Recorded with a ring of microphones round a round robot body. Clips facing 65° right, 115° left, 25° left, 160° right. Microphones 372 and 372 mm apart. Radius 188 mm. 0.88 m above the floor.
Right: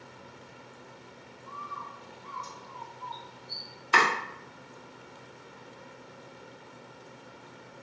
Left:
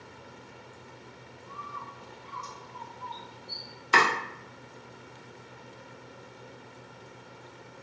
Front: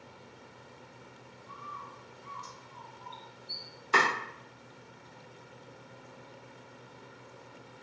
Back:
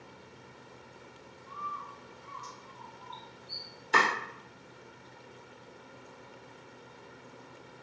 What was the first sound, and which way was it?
A bird, 60° left.